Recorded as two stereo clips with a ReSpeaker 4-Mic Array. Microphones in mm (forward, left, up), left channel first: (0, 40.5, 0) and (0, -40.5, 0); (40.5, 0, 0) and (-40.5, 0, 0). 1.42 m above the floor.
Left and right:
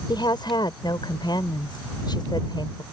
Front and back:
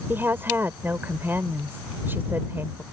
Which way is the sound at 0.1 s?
115° left.